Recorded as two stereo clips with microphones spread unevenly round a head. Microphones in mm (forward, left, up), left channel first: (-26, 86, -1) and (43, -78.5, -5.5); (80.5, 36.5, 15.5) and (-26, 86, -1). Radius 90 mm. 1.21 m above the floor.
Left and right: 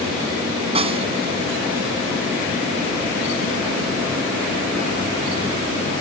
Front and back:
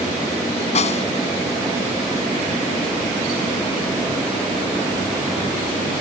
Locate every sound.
0.8 s a snare drum: 10° right